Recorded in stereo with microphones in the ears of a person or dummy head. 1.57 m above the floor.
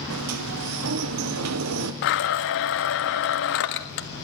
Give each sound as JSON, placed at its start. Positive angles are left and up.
{"t": 0.1, "sound": "a sliding door", "side_deg": -85, "distance_m": 1.3}
{"t": 2.0, "sound": "a blender", "side_deg": 65, "distance_m": 1.5}